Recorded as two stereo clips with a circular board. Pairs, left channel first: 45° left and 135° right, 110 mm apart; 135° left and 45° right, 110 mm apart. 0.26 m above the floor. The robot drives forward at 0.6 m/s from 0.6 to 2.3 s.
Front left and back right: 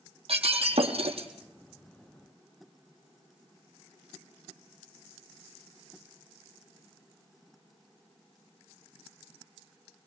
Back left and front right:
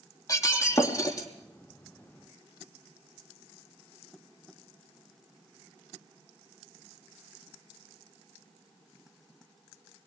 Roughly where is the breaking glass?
Behind.